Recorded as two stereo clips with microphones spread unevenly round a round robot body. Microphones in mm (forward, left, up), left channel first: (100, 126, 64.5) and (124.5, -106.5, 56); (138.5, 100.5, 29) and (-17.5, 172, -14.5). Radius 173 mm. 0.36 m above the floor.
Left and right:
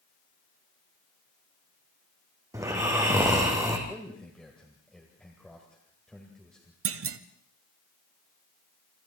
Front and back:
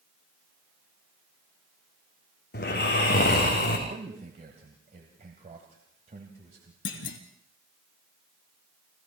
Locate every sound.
2.5 s snoring: 5° right, 5 m
3.9 s a man speaking: 175° right, 1.8 m
6.8 s a clunk: 60° right, 1.1 m